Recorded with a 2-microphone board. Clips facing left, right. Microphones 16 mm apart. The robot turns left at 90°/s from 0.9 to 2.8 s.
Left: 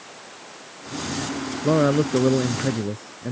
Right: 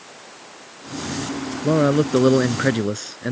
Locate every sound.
1.6 s a man speaking: 10° left; by 3.3 s 90° right